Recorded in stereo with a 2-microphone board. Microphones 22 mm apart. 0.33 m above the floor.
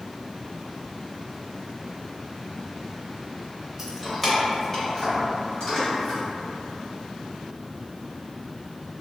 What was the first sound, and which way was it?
Keys jangling, 15° right (ahead or behind).